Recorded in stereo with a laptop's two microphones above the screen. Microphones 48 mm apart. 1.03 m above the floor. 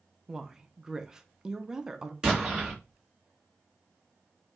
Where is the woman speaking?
10° right (ahead or behind), 0.7 m.